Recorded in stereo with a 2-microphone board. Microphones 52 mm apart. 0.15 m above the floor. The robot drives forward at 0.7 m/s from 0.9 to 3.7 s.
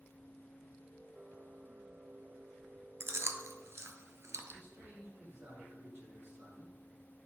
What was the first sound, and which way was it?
Chewing, 55° right (ahead or behind).